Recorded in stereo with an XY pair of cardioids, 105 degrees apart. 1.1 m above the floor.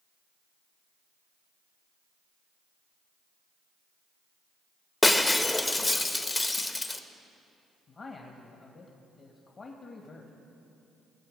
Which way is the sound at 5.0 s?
20° left.